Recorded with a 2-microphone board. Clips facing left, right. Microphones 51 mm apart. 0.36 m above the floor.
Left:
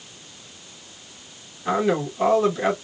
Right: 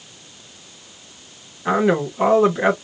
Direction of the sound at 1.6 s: 30° right (ahead or behind).